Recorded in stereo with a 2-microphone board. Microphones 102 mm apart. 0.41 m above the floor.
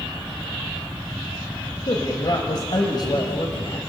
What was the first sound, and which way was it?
A man speaking, 50° left (ahead or behind).